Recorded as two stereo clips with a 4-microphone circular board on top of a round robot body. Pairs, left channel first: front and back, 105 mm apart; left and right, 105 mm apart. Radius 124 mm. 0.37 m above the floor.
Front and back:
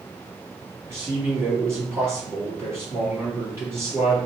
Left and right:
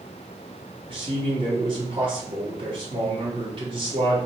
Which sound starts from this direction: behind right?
A man speaking, at 0.9 s.